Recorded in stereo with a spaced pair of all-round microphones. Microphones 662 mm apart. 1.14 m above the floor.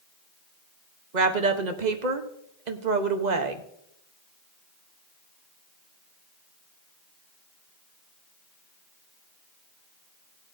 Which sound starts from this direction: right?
A woman speaking, at 1.1 s.